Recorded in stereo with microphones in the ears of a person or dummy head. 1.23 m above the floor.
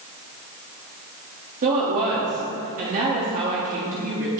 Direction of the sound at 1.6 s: 45° right (ahead or behind).